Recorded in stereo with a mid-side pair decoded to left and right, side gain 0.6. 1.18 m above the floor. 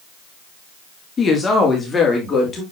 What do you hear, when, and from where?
1.2 s a woman speaking: 30° left, 2.5 m; by 2.6 s 25° left, 3 m